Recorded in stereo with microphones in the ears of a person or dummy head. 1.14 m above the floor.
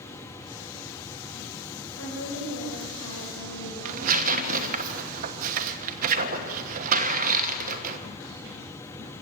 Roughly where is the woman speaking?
Left.